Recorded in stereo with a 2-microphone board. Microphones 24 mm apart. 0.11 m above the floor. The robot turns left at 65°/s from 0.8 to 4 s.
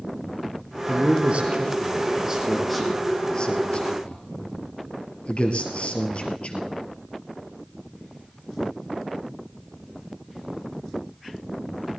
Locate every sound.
0.9 s a man speaking: 50° right (ahead or behind), 2.0 m; by 6.8 s 55° left (ahead or behind), 2.0 m